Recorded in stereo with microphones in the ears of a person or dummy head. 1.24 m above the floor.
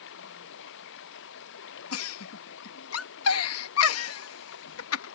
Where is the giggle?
75° left (ahead or behind).